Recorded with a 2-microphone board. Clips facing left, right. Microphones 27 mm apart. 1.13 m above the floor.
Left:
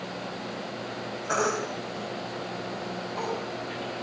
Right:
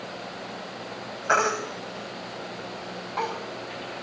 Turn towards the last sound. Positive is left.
turn(degrees=-40)  # may be behind; listen again after turning